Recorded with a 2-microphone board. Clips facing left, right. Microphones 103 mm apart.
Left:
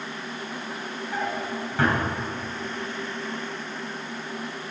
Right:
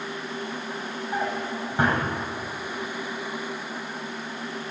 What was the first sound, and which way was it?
A drawer, 20° right (ahead or behind).